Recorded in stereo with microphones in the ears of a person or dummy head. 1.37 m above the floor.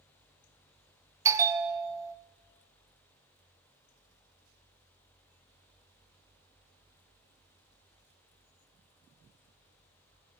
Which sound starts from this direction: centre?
A bell, at 1.2 s.